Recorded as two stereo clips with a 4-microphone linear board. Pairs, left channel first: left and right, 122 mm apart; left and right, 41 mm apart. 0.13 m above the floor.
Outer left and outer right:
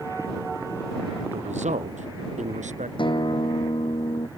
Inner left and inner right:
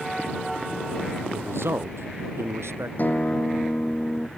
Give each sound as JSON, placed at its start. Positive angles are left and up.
{"t": 1.3, "sound": "a man speaking", "side_deg": -70}
{"t": 3.0, "sound": "a guitar", "side_deg": 40}